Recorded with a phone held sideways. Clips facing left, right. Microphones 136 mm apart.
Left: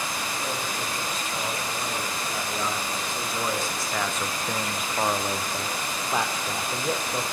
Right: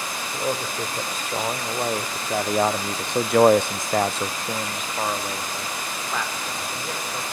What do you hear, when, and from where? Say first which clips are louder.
0.3 s a man speaking: right 4 dB; 50° right (ahead or behind), 3.5 m; by 7.2 s 30° left (ahead or behind), 3 m